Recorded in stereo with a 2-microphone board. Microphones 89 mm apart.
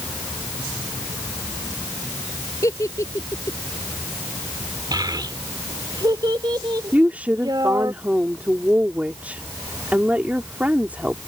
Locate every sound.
2.6 s a giggle: 40° left (ahead or behind)
4.9 s a child speaking: 55° right (ahead or behind)
6.9 s a woman speaking: 15° right (ahead or behind)